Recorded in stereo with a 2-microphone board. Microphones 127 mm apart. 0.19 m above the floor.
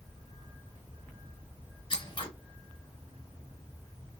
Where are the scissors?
45° left (ahead or behind), 2 m.